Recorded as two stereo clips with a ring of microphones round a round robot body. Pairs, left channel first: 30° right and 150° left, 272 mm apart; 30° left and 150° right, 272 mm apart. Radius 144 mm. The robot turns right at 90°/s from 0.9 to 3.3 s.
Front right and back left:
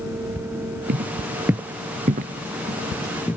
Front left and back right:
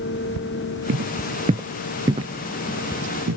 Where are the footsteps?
170° right, 0.7 m; by 3.4 s 115° right, 1.0 m.